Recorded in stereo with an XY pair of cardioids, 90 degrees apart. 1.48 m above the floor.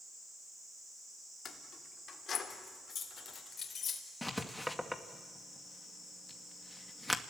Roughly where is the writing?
Ahead.